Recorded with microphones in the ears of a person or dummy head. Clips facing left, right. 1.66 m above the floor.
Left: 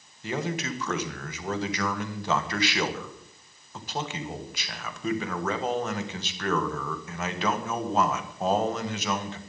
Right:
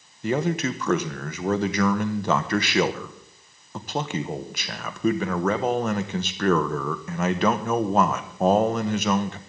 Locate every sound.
0.2 s a man speaking: 45° right (ahead or behind), 1.4 m